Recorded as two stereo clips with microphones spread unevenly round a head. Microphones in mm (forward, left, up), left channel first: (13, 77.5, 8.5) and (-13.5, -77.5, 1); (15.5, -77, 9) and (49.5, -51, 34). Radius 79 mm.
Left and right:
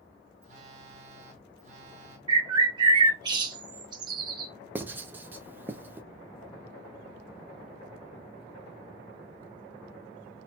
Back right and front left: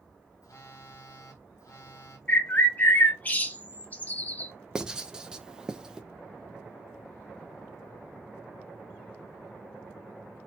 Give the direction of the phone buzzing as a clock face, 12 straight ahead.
5 o'clock.